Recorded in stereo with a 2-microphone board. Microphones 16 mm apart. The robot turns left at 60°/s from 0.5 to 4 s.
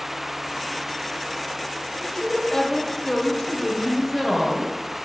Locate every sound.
2.0 s a woman speaking: 145° left, 1.4 m; by 4.7 s 25° left, 1.4 m